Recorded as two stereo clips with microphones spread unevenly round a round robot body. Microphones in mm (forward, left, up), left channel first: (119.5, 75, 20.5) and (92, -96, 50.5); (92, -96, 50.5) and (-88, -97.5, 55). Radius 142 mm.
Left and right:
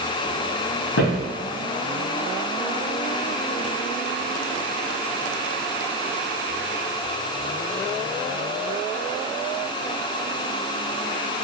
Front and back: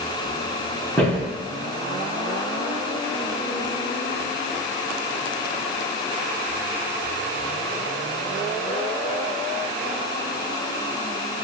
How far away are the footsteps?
About 1.9 m.